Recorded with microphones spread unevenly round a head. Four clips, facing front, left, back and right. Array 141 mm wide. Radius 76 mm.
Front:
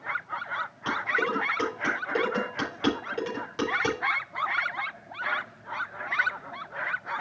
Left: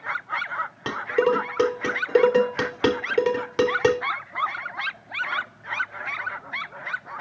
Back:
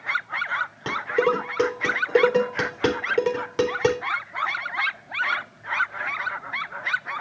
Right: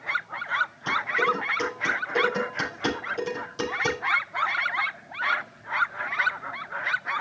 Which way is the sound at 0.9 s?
130° left.